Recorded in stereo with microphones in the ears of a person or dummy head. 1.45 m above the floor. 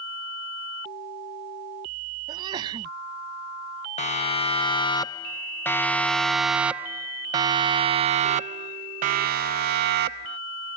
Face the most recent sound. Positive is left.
turn(degrees=-60)  # may be behind; listen again after turning